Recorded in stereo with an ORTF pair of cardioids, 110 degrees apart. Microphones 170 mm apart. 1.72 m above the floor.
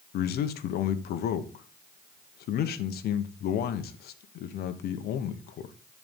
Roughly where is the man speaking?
Left.